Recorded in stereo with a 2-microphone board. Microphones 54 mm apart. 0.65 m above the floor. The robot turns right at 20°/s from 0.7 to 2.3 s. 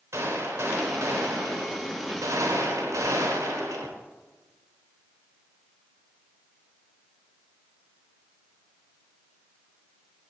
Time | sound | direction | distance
0.1 | a gunshot | 125° right | 1.3 m